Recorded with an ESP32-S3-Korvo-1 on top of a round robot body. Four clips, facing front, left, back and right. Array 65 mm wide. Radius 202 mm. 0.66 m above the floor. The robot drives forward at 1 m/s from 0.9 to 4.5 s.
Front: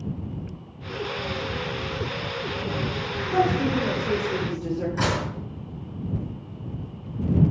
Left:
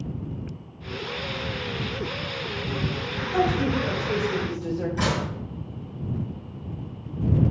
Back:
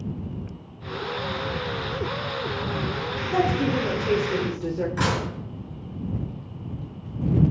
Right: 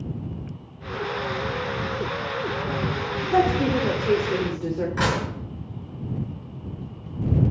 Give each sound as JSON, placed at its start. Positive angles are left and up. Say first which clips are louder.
{"t": 3.3, "sound": "a woman speaking", "louder": "right 3 dB, front 1 dB", "azimuth_deg": -100, "distance_m": 3.0}
{"t": 5.0, "sound": "dishes clattering", "louder": "right 3 dB, even", "azimuth_deg": -110, "distance_m": 8.0}